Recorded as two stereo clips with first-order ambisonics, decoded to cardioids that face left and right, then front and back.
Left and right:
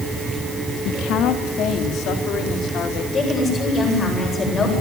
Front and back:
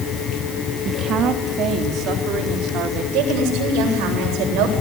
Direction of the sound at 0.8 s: 125° left.